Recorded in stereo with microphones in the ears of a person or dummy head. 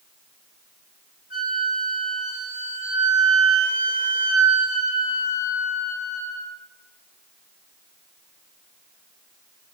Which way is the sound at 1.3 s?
45° left (ahead or behind).